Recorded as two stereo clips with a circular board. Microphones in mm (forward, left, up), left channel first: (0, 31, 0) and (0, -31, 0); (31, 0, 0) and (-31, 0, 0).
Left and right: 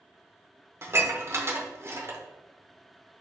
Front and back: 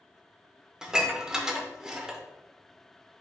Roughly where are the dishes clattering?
Right.